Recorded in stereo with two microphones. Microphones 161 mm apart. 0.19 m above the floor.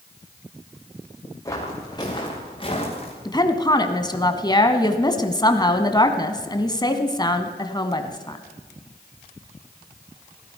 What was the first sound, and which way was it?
Footsteps, 20° left (ahead or behind).